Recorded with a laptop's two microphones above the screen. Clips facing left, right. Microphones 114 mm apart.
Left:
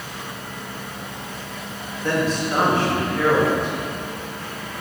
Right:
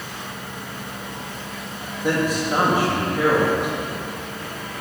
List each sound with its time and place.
2.0 s a man speaking: 15° right (ahead or behind), 2 m